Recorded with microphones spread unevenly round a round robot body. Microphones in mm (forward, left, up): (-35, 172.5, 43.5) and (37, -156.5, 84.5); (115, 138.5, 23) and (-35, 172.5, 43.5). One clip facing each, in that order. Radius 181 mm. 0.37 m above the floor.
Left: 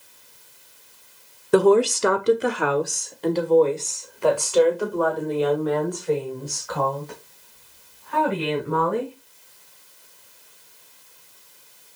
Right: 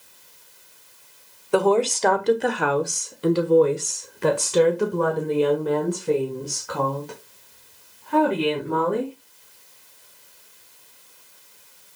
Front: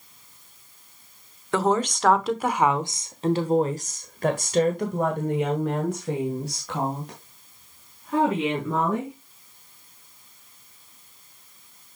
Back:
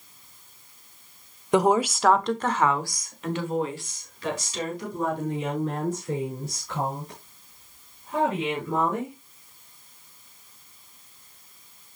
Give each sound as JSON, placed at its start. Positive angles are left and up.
{"t": 1.5, "sound": "a woman speaking", "azimuth_deg": 95, "distance_m": 1.3}